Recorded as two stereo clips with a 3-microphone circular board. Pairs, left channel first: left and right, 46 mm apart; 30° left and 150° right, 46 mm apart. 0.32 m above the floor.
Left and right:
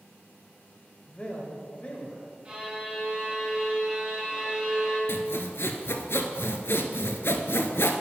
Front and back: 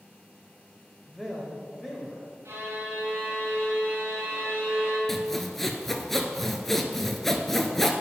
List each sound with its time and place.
1.1 s a man speaking: 130° left, 1.2 m
2.5 s a violin: 155° right, 2.5 m
5.1 s sawing: 115° left, 0.8 m